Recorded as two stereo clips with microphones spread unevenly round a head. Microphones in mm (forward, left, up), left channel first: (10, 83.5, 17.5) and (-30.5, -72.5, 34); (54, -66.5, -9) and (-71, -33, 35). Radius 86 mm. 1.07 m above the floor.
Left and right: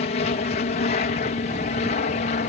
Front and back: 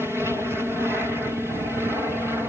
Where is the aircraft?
75° left.